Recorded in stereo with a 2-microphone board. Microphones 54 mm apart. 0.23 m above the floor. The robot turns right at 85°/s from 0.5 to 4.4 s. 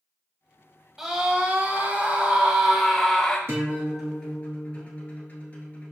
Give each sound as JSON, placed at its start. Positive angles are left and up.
{"t": 1.0, "sound": "a scream", "side_deg": -10, "distance_m": 1.0}
{"t": 3.5, "sound": "a guitar", "azimuth_deg": -50, "distance_m": 1.3}